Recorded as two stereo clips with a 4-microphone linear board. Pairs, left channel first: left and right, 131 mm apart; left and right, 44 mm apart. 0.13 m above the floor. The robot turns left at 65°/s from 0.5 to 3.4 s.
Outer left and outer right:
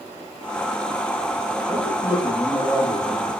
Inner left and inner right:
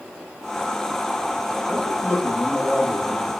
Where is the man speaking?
130° left, 1.3 m; by 3.3 s 25° left, 1.3 m.